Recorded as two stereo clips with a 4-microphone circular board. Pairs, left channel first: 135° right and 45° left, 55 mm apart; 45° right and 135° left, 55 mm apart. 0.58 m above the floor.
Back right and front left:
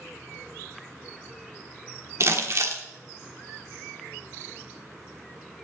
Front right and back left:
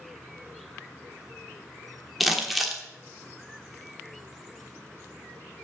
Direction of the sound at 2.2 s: 45° left.